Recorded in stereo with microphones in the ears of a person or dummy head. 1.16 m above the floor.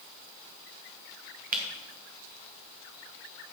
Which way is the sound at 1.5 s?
45° right (ahead or behind).